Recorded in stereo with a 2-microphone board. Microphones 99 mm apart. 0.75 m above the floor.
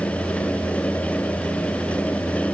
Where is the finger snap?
No finger snap in this recording.